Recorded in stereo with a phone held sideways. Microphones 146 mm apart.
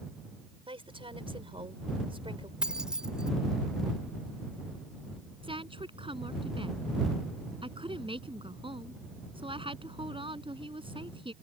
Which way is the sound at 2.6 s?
5° right (ahead or behind).